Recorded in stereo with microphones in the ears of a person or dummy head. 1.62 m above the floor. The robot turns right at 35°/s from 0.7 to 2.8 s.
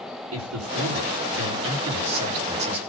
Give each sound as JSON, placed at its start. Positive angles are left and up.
{"t": 0.3, "sound": "a man speaking", "azimuth_deg": -105, "distance_m": 4.5}